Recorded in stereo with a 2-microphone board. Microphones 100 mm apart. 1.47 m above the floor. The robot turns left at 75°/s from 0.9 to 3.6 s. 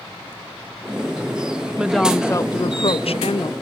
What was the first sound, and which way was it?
A woman speaking, 165° right.